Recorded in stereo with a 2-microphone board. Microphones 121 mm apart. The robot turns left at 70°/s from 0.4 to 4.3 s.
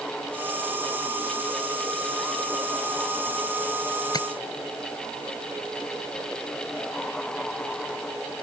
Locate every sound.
4.1 s tapping: 35° left (ahead or behind); by 4.3 s 45° left (ahead or behind)